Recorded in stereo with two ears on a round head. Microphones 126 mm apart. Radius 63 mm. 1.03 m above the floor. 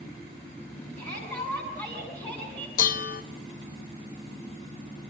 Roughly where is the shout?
Left.